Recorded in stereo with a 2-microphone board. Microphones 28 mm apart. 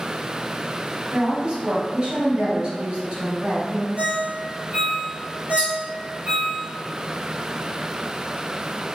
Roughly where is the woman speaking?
Right.